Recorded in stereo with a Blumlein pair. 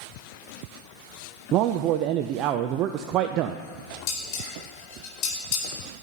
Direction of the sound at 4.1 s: 35° left.